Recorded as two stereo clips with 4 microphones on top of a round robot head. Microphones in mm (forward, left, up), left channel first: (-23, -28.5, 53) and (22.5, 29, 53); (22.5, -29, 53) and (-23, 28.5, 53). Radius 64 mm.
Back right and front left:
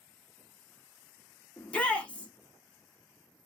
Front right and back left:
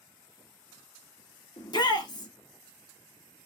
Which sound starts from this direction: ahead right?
A shout, at 1.6 s.